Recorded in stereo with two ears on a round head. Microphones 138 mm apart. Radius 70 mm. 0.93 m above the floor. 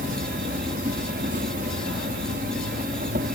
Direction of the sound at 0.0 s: 55° right (ahead or behind).